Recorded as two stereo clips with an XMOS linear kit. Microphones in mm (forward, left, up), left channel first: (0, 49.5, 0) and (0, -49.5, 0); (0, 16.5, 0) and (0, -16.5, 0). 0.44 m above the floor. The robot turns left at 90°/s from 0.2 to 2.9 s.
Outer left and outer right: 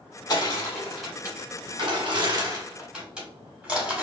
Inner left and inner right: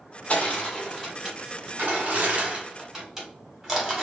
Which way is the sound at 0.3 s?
45° left (ahead or behind).